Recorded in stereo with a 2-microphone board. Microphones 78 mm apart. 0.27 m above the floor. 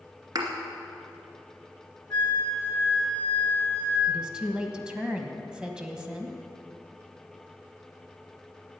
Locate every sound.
0.3 s a thud: 60° right (ahead or behind), 2 m
2.1 s a flute: 30° left (ahead or behind), 3.5 m
4.1 s a woman speaking: 10° right (ahead or behind), 1.4 m